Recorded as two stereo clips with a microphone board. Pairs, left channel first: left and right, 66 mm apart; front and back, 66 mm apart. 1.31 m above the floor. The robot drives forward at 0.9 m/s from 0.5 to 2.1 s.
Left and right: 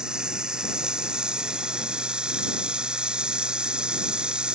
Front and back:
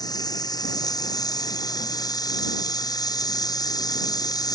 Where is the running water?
10° right; by 4.5 s 15° right.